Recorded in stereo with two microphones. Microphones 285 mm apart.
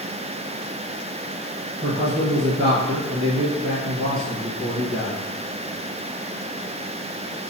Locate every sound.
1.8 s a man speaking: 45° right (ahead or behind), 1.4 m